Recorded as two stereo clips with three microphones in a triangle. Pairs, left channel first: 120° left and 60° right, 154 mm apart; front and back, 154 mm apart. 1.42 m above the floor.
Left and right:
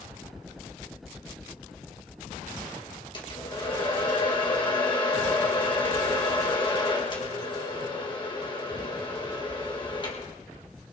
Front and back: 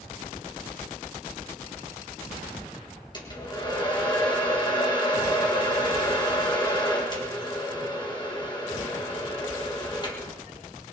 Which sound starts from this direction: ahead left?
A hair dryer, at 3.1 s.